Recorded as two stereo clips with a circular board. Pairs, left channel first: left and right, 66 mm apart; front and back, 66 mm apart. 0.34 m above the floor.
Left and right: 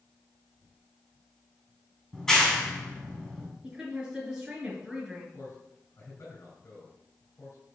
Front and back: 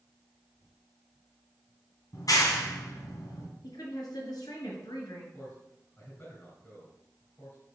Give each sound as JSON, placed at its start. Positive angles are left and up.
{"t": 2.1, "sound": "a clap", "azimuth_deg": 10, "distance_m": 2.5}
{"t": 3.6, "sound": "a woman speaking", "azimuth_deg": -10, "distance_m": 4.5}
{"t": 5.3, "sound": "a man speaking", "azimuth_deg": 60, "distance_m": 3.5}